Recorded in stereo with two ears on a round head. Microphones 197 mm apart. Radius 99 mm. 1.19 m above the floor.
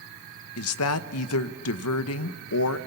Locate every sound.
0.6 s a woman speaking: 70° left (ahead or behind), 0.9 m